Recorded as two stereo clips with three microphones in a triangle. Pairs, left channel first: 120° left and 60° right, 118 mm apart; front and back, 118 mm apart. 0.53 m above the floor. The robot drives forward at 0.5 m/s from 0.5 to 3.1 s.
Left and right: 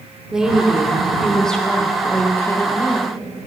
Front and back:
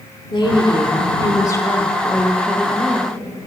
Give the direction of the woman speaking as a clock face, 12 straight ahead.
11 o'clock.